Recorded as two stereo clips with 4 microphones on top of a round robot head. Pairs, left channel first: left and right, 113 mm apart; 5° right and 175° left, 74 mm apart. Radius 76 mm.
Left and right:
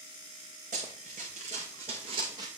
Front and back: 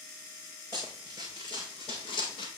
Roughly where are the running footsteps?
Ahead right.